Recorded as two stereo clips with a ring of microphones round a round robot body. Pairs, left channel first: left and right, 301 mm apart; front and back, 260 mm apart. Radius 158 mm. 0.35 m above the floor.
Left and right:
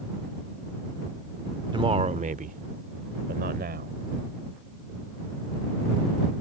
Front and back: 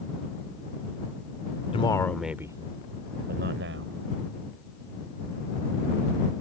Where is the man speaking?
35° right; by 4.0 s 145° right.